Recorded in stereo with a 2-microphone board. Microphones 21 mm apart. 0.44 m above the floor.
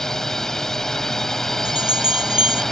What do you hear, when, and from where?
0.0 s a drone: 20° left (ahead or behind)
1.6 s a bell: 55° right (ahead or behind)